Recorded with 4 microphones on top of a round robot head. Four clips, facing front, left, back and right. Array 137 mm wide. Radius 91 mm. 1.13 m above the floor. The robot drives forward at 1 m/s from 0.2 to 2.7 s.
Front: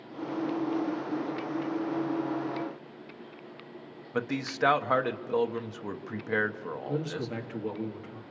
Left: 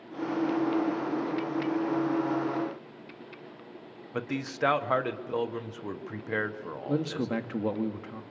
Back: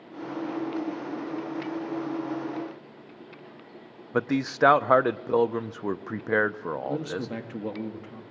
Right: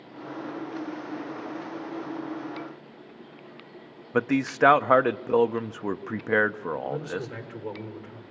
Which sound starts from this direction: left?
A man speaking, at 6.9 s.